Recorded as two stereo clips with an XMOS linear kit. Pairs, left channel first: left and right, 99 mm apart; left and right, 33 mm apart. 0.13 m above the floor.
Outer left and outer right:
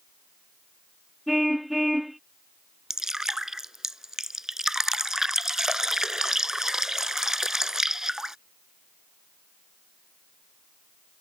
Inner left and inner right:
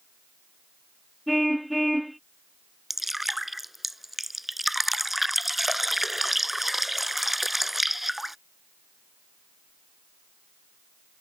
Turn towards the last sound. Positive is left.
turn(degrees=-5)  # may be behind; listen again after turning